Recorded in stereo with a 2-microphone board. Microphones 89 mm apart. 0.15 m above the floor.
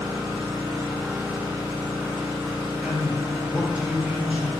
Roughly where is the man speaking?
Centre.